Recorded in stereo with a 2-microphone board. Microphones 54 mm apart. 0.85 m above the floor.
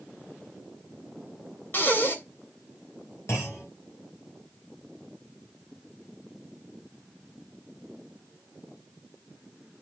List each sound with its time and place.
1.7 s breathing: 40° left (ahead or behind), 3 m
3.3 s a clunk: 50° left (ahead or behind), 6 m